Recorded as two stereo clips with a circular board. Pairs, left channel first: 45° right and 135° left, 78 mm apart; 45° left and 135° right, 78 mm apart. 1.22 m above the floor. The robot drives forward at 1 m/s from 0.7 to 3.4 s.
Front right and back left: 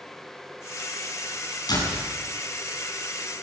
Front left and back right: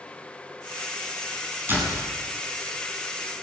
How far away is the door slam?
About 8.5 m.